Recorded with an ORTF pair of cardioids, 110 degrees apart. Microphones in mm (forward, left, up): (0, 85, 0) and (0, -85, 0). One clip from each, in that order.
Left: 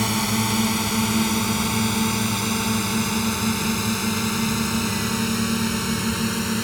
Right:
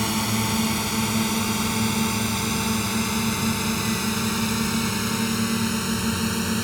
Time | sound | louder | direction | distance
0.0 | a drone | left 2 dB | 15° left | ?